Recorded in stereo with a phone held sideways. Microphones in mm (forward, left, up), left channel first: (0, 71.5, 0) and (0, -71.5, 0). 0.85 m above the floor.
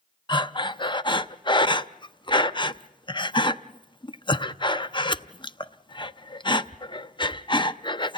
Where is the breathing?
35° left (ahead or behind), 0.5 m.